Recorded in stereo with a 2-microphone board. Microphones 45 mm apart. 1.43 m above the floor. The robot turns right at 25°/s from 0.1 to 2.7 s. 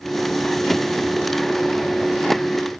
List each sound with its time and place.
Only background noise.